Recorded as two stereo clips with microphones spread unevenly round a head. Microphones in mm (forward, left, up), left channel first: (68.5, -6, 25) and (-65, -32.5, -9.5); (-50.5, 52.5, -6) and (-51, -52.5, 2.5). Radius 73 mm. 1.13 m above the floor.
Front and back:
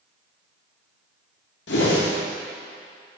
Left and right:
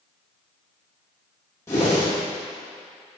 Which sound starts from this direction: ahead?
A whoosh, at 1.7 s.